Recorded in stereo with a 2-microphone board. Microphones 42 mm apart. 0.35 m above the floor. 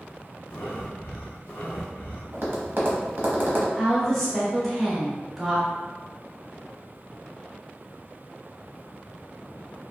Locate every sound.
0.5 s breathing: 80° left, 0.8 m
2.3 s tapping: 60° right (ahead or behind), 0.8 m
3.8 s a woman speaking: centre (ahead or behind), 1.0 m